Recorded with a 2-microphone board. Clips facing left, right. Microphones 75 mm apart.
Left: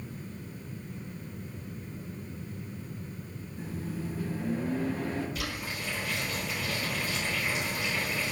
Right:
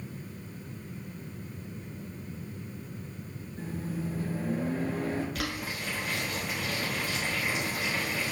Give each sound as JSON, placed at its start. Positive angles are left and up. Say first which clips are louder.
{"t": 3.6, "sound": "a microwave", "louder": "right 1 dB", "side_deg": -65, "distance_m": 1.9}
{"t": 5.3, "sound": "boiling", "louder": "right 2 dB", "side_deg": -65, "distance_m": 1.6}